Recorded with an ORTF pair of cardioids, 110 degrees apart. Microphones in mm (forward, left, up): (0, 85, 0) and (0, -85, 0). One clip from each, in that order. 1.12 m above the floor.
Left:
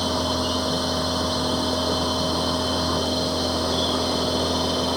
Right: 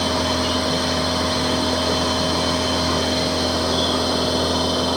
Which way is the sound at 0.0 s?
15° right.